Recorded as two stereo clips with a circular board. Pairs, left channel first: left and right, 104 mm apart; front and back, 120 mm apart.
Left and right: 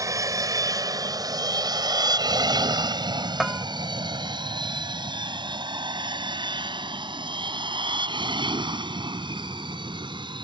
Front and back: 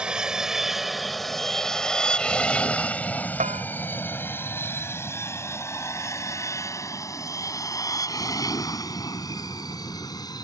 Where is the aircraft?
105° right; by 10.4 s 55° right.